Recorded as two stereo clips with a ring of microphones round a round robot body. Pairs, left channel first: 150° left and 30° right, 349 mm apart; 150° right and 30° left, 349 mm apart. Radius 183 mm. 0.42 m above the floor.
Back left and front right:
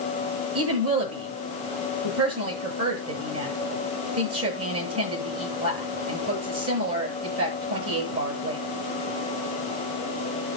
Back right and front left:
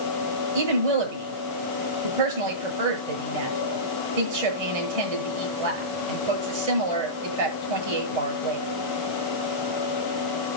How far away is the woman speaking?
About 8.5 m.